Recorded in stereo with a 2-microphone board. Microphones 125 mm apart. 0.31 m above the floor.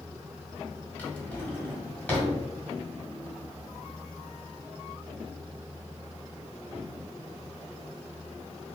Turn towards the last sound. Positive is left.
turn(degrees=10)  # may be behind; listen again after turning